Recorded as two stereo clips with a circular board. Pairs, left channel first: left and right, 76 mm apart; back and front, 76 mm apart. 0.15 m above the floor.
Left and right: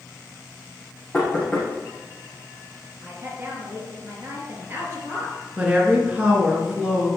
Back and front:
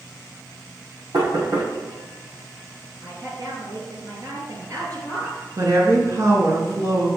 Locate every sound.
1.1 s knocking: 15° left, 4 m
3.0 s a woman speaking: 30° right, 3 m
5.6 s a woman speaking: 20° right, 2.5 m